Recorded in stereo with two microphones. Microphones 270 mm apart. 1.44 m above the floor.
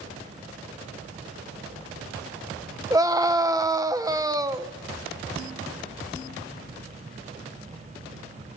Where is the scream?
15° right (ahead or behind), 1.4 m.